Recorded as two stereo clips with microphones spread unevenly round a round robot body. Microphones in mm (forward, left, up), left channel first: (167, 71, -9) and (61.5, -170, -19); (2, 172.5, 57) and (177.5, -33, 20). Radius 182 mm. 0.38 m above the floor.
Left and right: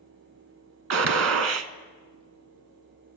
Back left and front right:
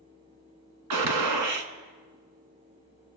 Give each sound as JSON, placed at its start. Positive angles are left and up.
{"t": 0.9, "sound": "a gunshot", "azimuth_deg": -85, "distance_m": 1.0}